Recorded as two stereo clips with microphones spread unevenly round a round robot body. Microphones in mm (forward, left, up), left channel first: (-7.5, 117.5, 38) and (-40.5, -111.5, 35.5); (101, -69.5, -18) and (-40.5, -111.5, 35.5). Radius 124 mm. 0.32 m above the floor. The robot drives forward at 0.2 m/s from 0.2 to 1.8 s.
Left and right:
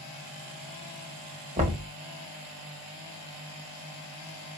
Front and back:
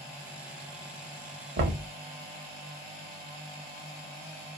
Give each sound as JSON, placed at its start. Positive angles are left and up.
{"t": 1.6, "sound": "knocking", "azimuth_deg": -155, "distance_m": 0.9}